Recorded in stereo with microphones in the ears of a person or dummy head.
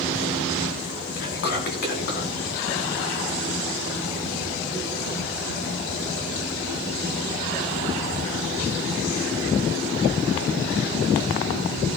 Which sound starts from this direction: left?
Whispering, at 1.2 s.